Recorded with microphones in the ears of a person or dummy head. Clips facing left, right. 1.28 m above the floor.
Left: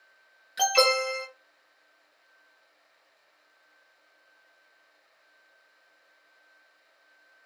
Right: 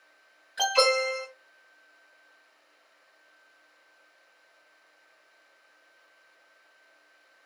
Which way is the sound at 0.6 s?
35° left (ahead or behind).